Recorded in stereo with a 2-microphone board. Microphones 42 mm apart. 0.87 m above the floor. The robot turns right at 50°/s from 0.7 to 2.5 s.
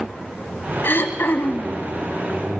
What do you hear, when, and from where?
0.8 s throat clearing: 80° left, 1.3 m; by 1.8 s 125° left, 1.3 m